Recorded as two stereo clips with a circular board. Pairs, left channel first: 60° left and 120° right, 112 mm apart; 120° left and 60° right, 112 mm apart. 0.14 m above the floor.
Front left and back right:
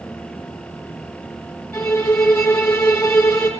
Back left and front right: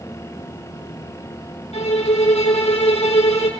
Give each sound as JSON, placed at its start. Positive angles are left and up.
{"t": 1.7, "sound": "a violin", "azimuth_deg": 130, "distance_m": 3.5}